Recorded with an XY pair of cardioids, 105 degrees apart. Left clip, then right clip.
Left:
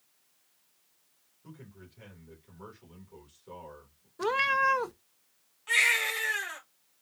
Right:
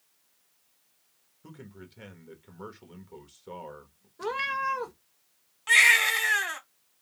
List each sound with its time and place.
1.4 s a man speaking: 55° right, 1.2 m
4.2 s a cat meowing: 35° left, 0.5 m
5.7 s a baby crying: 65° right, 1.7 m